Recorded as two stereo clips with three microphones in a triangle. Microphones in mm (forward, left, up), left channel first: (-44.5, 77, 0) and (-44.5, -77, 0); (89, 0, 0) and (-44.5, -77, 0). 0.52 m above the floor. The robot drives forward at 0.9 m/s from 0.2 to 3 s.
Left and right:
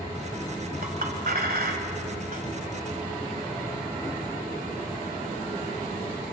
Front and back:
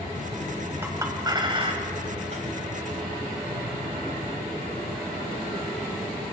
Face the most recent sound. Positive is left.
turn(degrees=-125)